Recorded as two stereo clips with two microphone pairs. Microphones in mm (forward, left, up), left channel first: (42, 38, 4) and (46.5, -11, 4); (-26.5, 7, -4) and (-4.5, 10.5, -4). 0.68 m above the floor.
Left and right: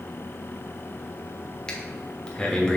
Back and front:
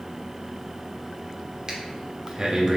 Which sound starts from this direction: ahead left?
Breathing, at 1.7 s.